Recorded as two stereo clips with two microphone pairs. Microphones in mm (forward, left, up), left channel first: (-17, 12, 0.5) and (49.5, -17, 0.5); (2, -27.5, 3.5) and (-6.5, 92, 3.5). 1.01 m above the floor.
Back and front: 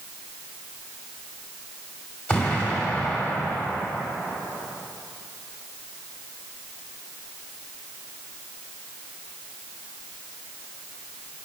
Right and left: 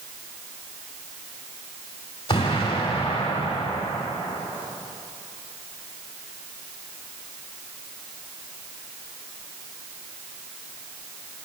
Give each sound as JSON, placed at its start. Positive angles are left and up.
{"t": 2.3, "sound": "an explosion", "azimuth_deg": -135, "distance_m": 2.5}